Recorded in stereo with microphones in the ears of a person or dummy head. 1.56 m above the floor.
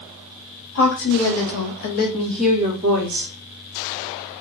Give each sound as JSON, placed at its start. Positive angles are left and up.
{"t": 0.8, "sound": "a woman speaking", "side_deg": 70, "distance_m": 1.3}